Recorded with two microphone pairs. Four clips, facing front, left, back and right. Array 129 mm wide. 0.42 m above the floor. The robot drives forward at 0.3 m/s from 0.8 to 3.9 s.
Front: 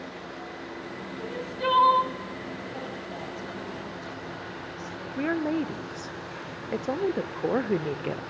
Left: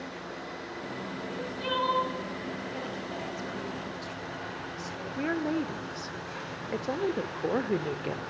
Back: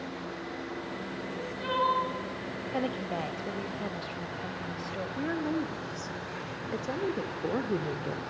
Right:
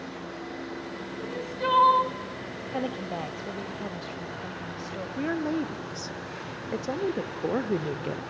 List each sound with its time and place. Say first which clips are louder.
1.2 s crying: right 7 dB, front 5 dB; 40° right, 2.5 m; by 2.1 s 45° right, 2.5 m
2.7 s a woman speaking: right 5 dB, back 5 dB; 130° right, 2 m; by 5.1 s 135° right, 2.5 m
5.2 s a woman speaking: right 1 dB, front 5 dB; straight ahead, 0.8 m